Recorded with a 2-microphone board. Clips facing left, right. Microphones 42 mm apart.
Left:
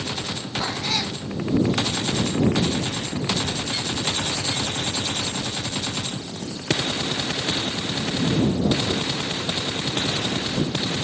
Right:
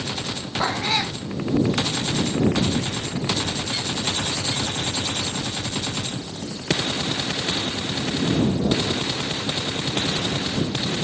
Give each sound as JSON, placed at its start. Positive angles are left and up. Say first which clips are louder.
{"t": 0.6, "sound": "a cat meowing", "louder": "right 4 dB", "side_deg": -25}